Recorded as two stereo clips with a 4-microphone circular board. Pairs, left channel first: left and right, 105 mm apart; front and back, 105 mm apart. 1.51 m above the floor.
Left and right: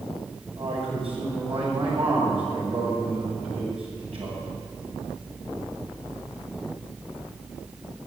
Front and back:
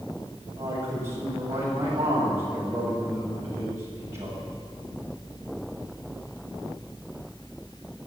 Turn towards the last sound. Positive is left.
turn(degrees=-120)